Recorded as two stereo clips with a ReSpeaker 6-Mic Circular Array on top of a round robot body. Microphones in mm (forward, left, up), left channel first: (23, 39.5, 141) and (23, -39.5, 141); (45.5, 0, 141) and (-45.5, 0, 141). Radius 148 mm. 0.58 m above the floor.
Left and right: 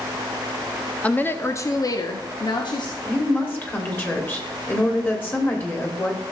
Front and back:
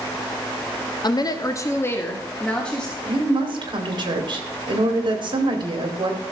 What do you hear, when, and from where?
1.0 s a woman speaking: 20° left, 1.0 m; by 3.0 s 80° left, 1.7 m
3.0 s a woman speaking: 150° left, 2.5 m